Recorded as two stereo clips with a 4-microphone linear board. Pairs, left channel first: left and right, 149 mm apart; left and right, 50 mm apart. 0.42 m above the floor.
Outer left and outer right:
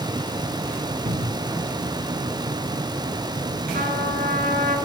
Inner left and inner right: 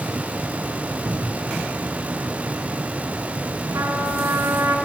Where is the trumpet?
70° right (ahead or behind), 3.5 m.